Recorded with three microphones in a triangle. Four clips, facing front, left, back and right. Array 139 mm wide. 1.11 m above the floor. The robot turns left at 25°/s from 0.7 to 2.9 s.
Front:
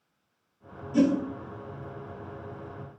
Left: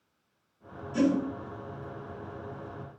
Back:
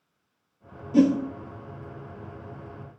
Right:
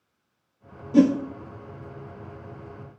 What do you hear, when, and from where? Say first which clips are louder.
0.9 s a whoosh: right 7 dB, back 3 dB; 120° right, 1.5 m; by 1.2 s 125° right, 1.5 m